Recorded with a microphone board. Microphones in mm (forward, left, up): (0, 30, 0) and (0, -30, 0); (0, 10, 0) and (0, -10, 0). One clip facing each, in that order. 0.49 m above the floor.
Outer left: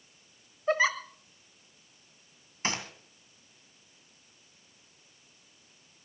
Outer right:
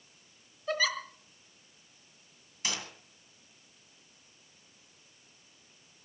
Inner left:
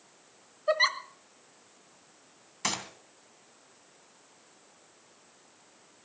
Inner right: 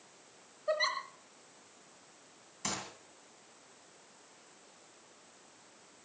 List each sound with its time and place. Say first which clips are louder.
0.7 s a giggle: outer left 5 dB, inner left 6 dB; 30° left (ahead or behind), 1.2 m
2.6 s a gunshot: outer left 4 dB, inner left 6 dB; 40° left (ahead or behind), 2.5 m